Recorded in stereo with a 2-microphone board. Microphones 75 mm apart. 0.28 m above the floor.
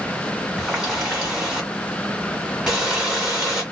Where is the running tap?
10° right (ahead or behind), 1.3 m.